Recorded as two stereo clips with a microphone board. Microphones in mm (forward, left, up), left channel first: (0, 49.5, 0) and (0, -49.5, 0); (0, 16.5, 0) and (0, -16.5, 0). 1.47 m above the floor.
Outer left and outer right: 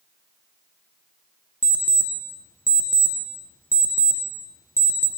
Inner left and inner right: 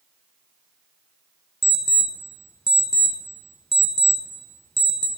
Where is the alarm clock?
20° left (ahead or behind), 0.5 m.